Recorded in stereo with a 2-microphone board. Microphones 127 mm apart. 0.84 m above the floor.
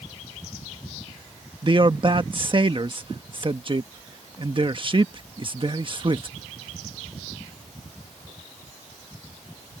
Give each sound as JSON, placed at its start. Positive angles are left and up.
{"t": 1.6, "sound": "a man speaking", "side_deg": -40}